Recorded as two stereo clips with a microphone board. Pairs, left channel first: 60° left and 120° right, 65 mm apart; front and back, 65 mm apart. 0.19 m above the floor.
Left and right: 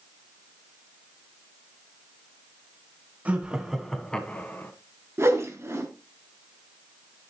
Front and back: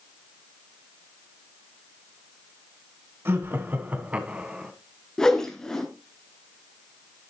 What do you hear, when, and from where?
3.2 s laughter: 175° right, 1.5 m; by 4.7 s 105° left, 1.8 m
5.2 s a whoosh: 80° right, 1.9 m